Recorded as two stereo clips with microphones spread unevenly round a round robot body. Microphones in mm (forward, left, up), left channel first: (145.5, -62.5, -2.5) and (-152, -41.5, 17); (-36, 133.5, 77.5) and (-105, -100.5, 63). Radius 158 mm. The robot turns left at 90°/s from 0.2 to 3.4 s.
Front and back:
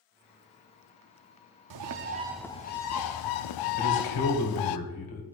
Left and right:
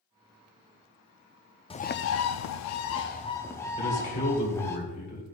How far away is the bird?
About 0.5 m.